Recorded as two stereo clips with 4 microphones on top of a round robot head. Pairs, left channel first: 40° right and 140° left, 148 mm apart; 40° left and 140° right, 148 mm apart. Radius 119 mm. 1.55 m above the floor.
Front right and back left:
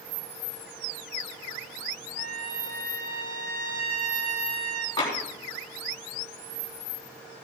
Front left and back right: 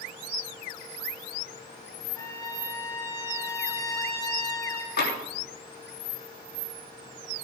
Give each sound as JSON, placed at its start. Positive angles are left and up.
{"t": 2.2, "sound": "a trumpet", "azimuth_deg": 110, "distance_m": 1.2}
{"t": 5.0, "sound": "tapping", "azimuth_deg": 25, "distance_m": 3.5}